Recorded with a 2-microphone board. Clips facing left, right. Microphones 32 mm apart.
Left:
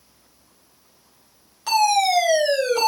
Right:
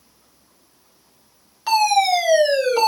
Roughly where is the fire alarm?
Centre.